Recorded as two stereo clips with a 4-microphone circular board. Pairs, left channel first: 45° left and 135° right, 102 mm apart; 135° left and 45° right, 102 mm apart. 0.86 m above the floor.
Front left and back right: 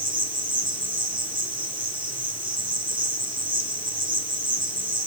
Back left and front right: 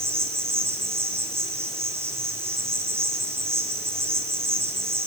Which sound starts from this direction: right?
An insect, at 0.0 s.